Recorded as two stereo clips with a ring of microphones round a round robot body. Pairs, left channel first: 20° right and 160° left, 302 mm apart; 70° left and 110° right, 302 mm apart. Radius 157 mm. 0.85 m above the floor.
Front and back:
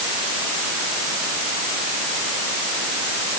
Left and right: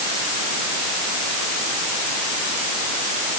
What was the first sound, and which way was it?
Only background noise.